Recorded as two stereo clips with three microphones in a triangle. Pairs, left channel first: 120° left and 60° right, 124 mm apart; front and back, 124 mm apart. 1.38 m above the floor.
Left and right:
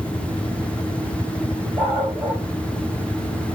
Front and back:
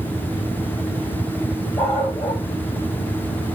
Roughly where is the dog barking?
Behind right.